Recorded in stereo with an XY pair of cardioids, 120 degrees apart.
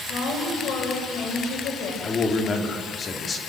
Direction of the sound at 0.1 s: 70° left.